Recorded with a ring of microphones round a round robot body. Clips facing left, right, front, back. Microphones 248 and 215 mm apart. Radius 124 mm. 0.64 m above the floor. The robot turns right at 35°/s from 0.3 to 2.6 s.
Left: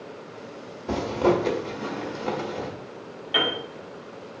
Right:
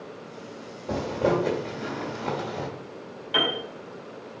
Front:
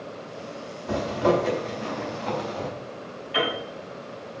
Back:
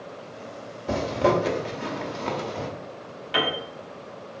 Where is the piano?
165° right, 4 m.